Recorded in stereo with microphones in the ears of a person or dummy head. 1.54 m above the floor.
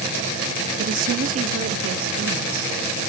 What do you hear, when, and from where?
0.8 s a woman speaking: 45° right (ahead or behind), 0.8 m